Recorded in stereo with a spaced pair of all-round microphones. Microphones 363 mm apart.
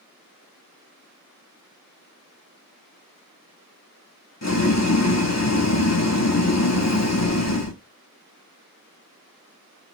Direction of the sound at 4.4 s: 45° left (ahead or behind).